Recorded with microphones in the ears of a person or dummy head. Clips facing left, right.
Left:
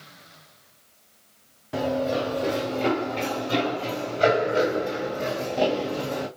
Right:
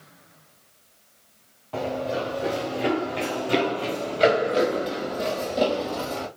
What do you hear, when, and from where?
1.7 s running footsteps: 15° left (ahead or behind), 1.3 m; by 6.3 s 60° right (ahead or behind), 2.5 m